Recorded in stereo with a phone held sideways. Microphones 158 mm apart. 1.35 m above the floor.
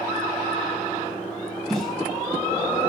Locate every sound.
1.7 s a snare drum: centre (ahead or behind), 4.5 m